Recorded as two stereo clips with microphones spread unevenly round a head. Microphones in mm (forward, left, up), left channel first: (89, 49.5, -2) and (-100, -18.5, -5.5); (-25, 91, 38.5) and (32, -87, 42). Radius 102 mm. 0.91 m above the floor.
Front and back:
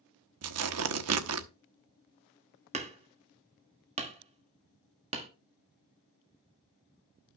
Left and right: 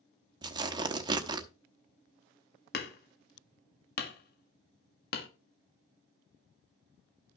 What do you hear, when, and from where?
0.4 s tearing paper: 140° right, 0.9 m
2.7 s hammering: 140° left, 1.5 m